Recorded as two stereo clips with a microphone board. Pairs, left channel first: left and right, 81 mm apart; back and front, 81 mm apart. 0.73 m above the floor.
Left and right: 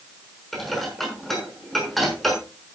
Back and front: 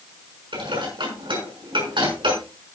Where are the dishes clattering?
Straight ahead, 6.5 m.